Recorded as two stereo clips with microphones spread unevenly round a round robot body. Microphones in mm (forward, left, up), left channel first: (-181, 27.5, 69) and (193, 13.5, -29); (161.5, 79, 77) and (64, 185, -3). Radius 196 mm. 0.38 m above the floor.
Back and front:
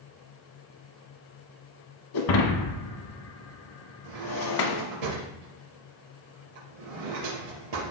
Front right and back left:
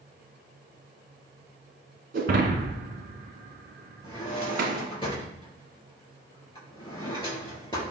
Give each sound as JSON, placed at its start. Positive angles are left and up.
{"t": 2.1, "sound": "breaking glass", "azimuth_deg": 145, "distance_m": 1.7}
{"t": 4.0, "sound": "a drawer", "azimuth_deg": 10, "distance_m": 3.5}